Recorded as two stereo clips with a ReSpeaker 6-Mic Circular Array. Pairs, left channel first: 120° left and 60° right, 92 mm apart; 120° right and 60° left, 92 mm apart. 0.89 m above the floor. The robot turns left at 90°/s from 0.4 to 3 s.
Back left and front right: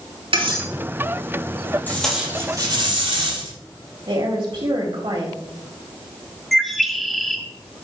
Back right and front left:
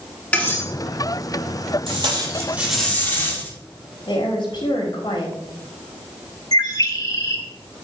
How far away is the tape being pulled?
About 5 m.